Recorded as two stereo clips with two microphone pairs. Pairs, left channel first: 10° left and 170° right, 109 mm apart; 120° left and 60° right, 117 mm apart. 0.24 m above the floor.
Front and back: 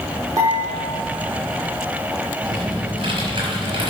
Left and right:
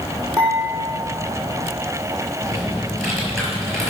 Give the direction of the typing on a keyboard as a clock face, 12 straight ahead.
4 o'clock.